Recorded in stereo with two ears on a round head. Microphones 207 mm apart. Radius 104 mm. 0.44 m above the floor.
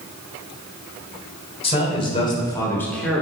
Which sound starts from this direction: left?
A man speaking, at 1.6 s.